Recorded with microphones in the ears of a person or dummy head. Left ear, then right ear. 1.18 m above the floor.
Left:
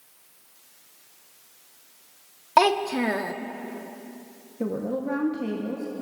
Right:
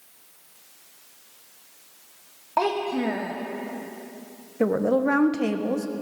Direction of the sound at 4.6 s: 55° right (ahead or behind).